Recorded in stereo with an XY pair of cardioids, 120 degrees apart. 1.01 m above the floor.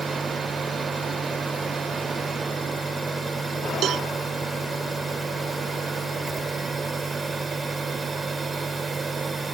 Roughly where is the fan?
Ahead right.